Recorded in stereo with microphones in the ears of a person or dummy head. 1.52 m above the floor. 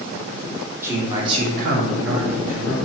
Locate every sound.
0.8 s a man speaking: 15° right (ahead or behind), 1.1 m; by 2.7 s 60° right (ahead or behind), 1.1 m